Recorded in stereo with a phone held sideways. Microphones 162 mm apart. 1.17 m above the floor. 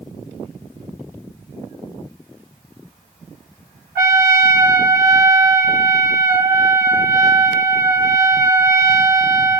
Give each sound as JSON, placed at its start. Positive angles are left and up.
{"t": 4.0, "sound": "a trumpet", "side_deg": 65, "distance_m": 2.0}